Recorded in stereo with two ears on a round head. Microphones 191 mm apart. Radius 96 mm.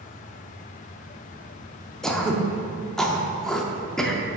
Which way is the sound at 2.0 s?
Centre (ahead or behind).